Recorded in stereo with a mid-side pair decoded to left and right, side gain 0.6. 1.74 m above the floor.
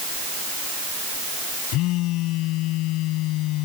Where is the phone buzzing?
70° left.